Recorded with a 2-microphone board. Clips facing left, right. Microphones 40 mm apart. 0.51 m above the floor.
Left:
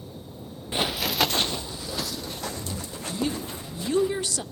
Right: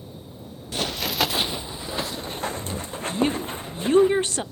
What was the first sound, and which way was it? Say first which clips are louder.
Running footsteps: even; 25° left (ahead or behind).